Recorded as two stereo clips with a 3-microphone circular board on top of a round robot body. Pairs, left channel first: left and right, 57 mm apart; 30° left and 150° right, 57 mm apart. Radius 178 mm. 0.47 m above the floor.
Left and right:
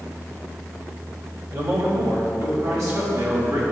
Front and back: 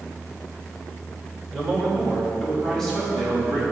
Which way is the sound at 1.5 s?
55° right.